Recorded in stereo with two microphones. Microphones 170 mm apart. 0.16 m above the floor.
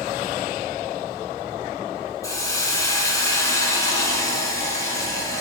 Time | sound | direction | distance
2.2 | a hiss | 20° left (ahead or behind) | 1.0 m